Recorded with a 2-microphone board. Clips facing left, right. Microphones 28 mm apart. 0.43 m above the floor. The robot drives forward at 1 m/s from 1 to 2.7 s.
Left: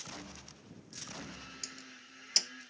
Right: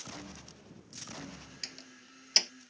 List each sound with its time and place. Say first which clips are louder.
1.6 s a door slam: right 2 dB; 30° right (ahead or behind); by 2.5 s 25° right (ahead or behind)